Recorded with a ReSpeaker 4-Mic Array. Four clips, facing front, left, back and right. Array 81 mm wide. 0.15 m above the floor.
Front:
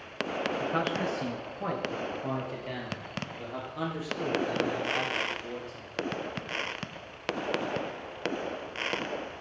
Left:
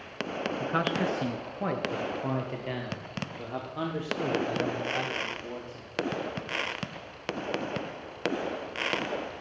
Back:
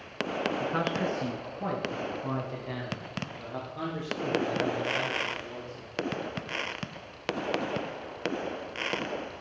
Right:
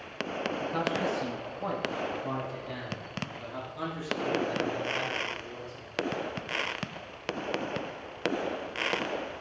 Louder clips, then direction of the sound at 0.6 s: Left 2 dB, front 1 dB; 85° left.